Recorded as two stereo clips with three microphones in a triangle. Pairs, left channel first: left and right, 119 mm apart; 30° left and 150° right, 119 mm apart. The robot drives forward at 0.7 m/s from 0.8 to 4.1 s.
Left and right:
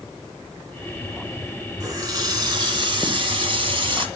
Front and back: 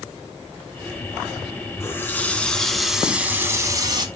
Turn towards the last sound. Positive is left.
turn(degrees=-115)